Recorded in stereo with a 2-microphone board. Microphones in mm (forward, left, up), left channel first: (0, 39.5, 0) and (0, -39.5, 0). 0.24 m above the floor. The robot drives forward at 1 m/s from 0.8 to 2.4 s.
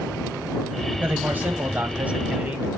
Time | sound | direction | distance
1.0 | a man speaking | 20° right (ahead or behind) | 1.3 m